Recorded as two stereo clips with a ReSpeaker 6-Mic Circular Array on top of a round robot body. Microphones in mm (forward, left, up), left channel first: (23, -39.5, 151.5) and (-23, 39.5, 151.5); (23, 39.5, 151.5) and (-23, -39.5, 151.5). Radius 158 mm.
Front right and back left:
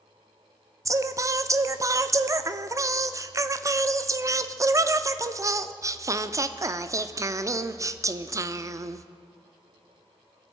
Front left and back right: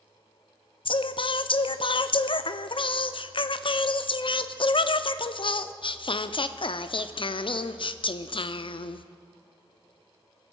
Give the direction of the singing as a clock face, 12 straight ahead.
10 o'clock.